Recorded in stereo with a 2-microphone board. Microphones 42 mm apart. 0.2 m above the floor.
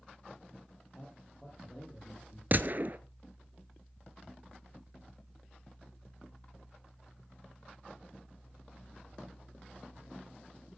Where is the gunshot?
50° right (ahead or behind), 0.7 m.